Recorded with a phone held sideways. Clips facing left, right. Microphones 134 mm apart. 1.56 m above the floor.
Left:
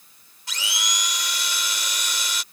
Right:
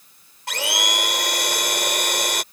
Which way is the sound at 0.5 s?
60° right (ahead or behind).